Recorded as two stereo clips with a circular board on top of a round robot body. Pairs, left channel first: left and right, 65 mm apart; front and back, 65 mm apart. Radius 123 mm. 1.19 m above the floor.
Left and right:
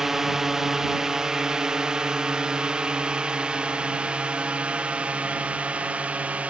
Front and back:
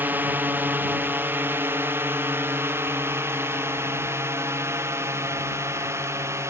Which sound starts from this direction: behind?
A drone, at 0.0 s.